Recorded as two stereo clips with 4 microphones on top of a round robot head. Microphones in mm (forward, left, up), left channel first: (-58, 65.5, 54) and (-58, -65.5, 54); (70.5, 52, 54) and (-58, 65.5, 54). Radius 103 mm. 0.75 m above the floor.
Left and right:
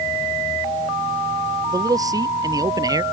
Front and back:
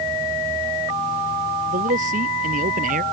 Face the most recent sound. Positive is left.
turn(degrees=-150)